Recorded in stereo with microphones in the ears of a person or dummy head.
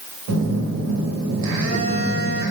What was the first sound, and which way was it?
A phone buzzing, 70° right (ahead or behind).